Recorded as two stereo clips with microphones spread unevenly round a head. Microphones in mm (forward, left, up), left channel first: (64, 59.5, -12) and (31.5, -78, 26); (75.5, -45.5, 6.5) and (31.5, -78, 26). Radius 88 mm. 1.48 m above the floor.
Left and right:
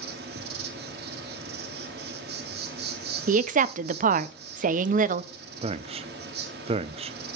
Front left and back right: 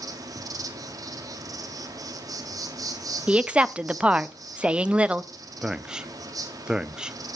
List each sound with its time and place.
0.0 s an insect: 130° right, 1.6 m
3.3 s a woman speaking: 75° right, 0.6 m
5.6 s a man speaking: 85° right, 0.5 m